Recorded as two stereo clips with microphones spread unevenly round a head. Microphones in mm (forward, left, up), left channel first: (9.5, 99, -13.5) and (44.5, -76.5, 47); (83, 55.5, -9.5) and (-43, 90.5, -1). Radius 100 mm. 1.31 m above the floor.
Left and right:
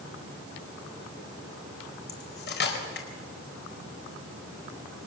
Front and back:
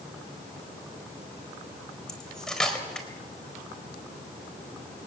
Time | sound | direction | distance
2.1 | cutlery clinking | 70° left | 4.5 m